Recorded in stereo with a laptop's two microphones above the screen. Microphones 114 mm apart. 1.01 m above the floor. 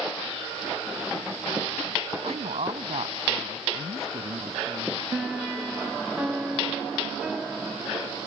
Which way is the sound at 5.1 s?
10° right (ahead or behind).